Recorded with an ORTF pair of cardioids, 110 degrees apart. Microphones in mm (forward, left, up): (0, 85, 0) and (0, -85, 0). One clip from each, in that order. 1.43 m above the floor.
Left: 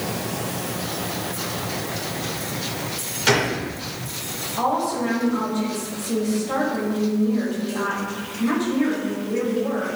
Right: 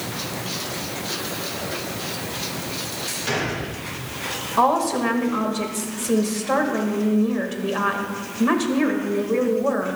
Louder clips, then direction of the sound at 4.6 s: Right 4 dB; 50° right.